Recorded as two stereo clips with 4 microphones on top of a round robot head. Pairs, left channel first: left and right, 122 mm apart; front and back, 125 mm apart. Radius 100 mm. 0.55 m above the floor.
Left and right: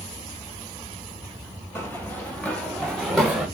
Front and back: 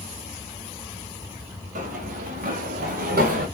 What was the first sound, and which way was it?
Running footsteps, 165° left.